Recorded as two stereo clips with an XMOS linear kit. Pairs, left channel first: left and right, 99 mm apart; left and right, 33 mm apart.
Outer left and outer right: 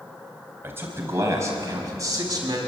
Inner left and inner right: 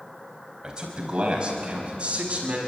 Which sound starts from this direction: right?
A man speaking, at 0.6 s.